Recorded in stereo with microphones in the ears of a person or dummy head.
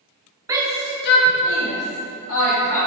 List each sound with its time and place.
0.5 s a shout: 20° right (ahead or behind), 0.7 m; by 2.8 s 65° left (ahead or behind), 2.5 m